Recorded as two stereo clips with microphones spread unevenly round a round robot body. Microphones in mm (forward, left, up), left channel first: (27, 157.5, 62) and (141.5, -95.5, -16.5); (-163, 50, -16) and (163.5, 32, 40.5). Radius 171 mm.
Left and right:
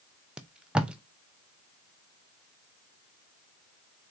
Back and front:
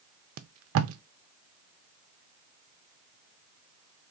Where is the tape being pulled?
15° right, 0.5 m.